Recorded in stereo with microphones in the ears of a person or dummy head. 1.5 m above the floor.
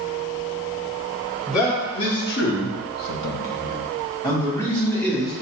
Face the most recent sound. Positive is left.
turn(degrees=5)  # may be behind; listen again after turning